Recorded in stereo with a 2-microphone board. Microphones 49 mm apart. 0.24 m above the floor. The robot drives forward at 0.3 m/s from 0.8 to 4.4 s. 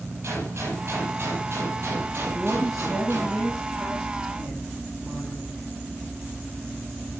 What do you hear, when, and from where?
0.2 s a gunshot: 55° right (ahead or behind), 8 m; by 3.4 s 50° right (ahead or behind), 8 m
2.4 s a woman speaking: 10° right (ahead or behind), 6.5 m